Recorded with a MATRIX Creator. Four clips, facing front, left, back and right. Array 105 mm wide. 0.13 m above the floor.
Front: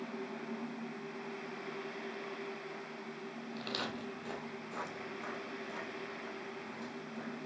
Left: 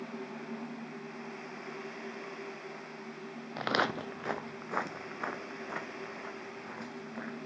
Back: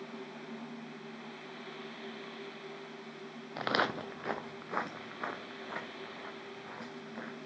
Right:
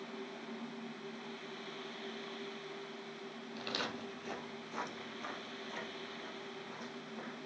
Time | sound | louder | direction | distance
3.6 | footsteps | left 11 dB, back 10 dB | 130° left | 0.6 m